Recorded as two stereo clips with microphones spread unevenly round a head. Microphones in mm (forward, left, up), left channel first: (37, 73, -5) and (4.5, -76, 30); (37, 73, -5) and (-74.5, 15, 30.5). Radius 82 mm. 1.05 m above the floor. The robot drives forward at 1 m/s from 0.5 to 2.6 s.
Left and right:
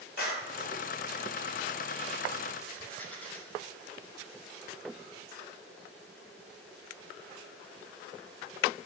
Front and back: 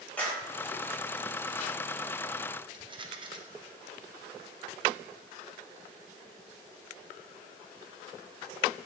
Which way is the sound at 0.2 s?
105° left.